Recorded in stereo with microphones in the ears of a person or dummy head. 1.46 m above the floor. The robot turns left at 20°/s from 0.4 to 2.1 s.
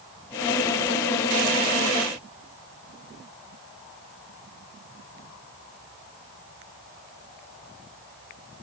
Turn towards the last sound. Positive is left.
No sound to turn to.